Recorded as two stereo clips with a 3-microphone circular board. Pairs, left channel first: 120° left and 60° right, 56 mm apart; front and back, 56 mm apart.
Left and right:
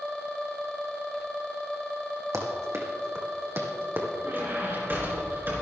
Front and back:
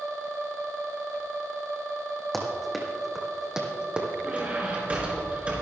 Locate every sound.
2.3 s running footsteps: 85° right, 3 m; by 4.1 s 110° right, 2.5 m
4.2 s a squeak: 110° right, 4 m